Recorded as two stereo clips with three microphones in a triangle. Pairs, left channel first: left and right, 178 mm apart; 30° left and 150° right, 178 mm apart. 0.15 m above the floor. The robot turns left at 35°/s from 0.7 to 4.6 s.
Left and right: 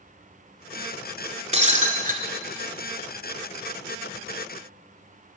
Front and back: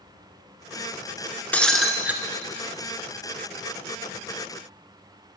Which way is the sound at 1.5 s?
50° right.